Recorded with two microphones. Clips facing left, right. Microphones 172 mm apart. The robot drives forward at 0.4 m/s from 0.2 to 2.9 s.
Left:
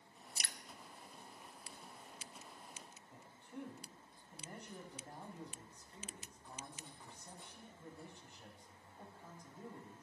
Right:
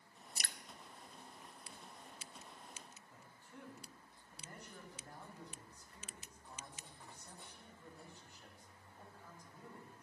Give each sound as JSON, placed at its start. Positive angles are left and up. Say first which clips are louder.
{"t": 0.4, "sound": "dripping", "louder": "right 1 dB", "side_deg": -40, "distance_m": 0.5}
{"t": 3.1, "sound": "a man speaking", "louder": "left 10 dB", "side_deg": 20, "distance_m": 2.5}